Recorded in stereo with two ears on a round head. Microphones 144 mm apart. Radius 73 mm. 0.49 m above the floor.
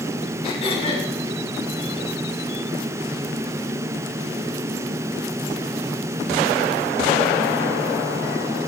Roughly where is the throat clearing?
Left.